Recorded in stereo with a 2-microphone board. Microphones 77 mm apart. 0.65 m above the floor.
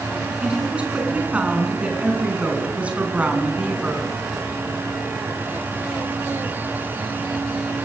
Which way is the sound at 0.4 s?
15° right (ahead or behind).